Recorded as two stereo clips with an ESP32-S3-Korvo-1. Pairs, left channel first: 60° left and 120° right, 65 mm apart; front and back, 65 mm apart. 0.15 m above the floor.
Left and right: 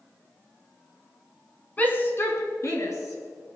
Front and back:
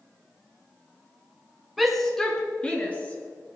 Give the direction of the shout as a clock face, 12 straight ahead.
9 o'clock.